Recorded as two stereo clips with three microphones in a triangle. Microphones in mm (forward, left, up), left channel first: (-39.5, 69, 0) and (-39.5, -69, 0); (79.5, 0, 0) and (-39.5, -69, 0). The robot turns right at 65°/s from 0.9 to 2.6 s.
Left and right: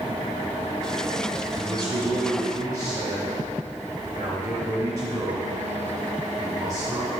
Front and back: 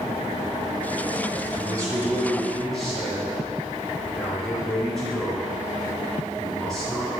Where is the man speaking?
125° right, 1.7 m; by 7.1 s 55° right, 1.7 m.